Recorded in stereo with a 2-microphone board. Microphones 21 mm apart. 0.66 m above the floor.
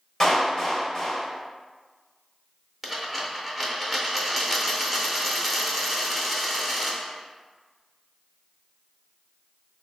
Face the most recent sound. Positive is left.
turn(degrees=-5)  # may be behind; listen again after turning